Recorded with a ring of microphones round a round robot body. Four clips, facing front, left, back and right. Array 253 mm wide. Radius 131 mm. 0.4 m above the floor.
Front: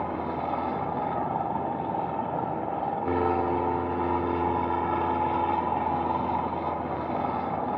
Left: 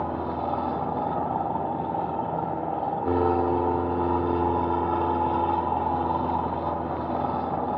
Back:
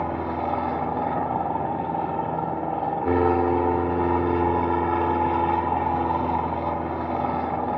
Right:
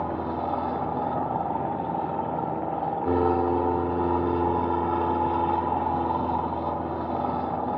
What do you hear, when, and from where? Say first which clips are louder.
0.0 s an aircraft: even, back 3 dB; straight behind